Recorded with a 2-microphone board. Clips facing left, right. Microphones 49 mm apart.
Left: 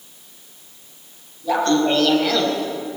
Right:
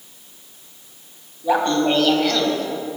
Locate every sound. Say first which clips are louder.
1.4 s laughter: even; 20° right (ahead or behind), 3 m; by 2.7 s 20° left (ahead or behind), 2.5 m